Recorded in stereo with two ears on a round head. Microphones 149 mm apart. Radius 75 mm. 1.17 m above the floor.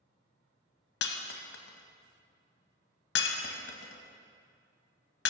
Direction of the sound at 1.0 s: 70° left (ahead or behind).